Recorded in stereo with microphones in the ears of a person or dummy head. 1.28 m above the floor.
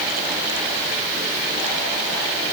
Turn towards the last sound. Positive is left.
No sound to turn to.